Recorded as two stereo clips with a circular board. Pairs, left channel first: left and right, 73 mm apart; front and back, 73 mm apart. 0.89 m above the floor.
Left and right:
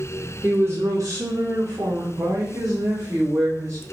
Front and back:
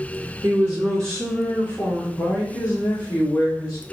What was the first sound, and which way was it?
A woman speaking, 150° right.